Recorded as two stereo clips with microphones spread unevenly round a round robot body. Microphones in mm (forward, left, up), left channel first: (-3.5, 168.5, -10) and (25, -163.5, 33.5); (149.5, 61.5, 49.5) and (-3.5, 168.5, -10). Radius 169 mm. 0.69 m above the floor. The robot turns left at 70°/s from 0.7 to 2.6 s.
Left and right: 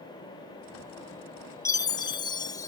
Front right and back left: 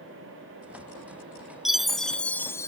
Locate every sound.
1.6 s a chime: 130° left; by 2.7 s 65° left